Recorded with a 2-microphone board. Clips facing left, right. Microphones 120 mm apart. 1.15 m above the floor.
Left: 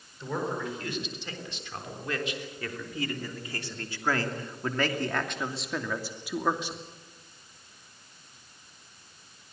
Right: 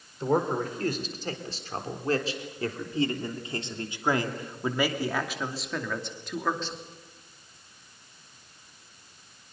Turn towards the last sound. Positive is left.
turn(degrees=15)  # may be behind; listen again after turning